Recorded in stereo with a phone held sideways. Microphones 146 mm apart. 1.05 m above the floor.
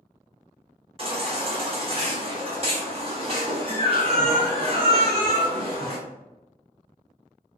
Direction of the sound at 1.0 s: 40° right (ahead or behind).